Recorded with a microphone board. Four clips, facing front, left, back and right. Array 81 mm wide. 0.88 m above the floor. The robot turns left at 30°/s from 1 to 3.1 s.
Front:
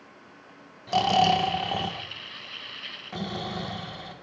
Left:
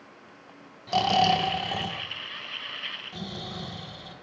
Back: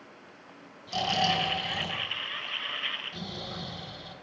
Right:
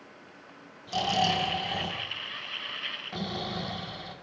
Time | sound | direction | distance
0.9 | snoring | 35° left | 1.4 m